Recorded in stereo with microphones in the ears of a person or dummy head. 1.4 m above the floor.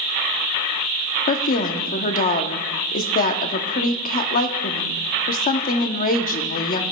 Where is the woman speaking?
45° left (ahead or behind), 0.7 m.